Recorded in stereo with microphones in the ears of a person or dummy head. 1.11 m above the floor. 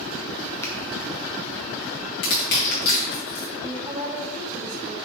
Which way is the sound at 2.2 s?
55° left (ahead or behind).